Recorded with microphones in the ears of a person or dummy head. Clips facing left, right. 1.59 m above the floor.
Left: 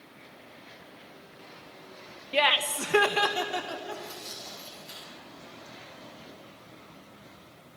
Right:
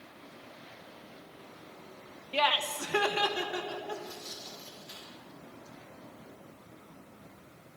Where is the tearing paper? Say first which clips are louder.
Even; 75° left (ahead or behind), 4.5 m.